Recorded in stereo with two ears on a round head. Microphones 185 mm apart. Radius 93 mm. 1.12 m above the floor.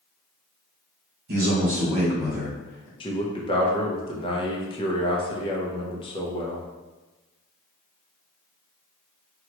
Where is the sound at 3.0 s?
25° left (ahead or behind), 0.7 m.